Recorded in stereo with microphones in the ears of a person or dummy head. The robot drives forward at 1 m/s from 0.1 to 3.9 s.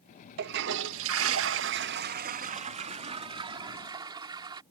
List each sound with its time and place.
0.4 s a toilet flushing: 55° right (ahead or behind); by 4.6 s 25° right (ahead or behind)